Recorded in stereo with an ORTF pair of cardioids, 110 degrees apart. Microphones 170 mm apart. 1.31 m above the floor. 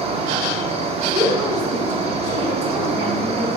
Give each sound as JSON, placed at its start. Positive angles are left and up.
{"t": 0.0, "sound": "an insect", "azimuth_deg": -35, "distance_m": 0.9}
{"t": 1.1, "sound": "a woman speaking", "azimuth_deg": -40, "distance_m": 3.5}